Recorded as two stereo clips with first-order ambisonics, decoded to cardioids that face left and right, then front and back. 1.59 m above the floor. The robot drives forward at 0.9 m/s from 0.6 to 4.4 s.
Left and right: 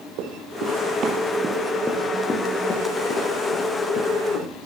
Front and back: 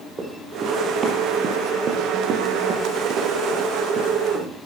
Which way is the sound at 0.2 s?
110° right.